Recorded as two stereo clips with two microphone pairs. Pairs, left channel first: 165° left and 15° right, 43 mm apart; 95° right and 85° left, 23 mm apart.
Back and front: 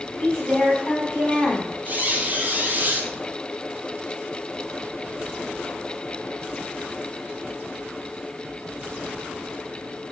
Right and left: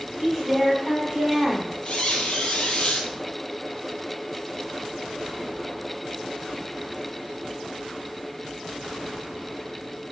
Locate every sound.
0.2 s a woman speaking: 160° left, 1.8 m
1.9 s a squeak: 65° right, 0.9 m